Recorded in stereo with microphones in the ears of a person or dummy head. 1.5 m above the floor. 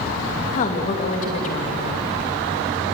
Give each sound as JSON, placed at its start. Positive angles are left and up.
{"t": 0.5, "sound": "a woman speaking", "side_deg": 35, "distance_m": 2.5}